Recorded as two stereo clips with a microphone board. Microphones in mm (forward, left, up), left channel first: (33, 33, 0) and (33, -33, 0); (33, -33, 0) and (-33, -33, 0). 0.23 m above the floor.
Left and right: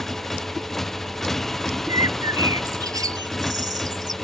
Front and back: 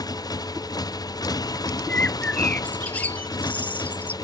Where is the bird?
65° right.